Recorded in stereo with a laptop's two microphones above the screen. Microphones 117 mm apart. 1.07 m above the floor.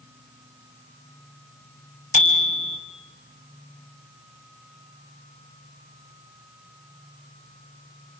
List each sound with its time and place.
2.1 s a bicycle bell: 90° left, 3 m